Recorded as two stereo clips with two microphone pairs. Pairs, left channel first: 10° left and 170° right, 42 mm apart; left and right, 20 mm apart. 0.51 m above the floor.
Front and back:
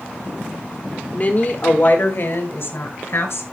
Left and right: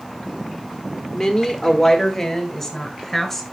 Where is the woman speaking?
50° left, 1.3 m; by 3.4 s 15° left, 2.5 m.